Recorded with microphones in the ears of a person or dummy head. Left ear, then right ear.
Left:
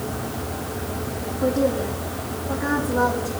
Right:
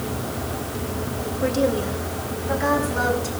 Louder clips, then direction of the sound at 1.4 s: Even; 85° right.